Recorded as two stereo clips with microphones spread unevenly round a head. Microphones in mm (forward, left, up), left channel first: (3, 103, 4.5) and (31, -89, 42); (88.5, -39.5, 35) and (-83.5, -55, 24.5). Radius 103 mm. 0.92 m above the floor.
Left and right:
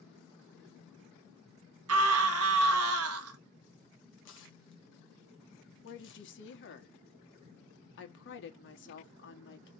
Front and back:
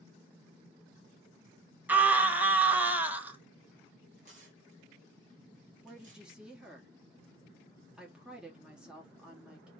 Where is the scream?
95° right, 1.1 m.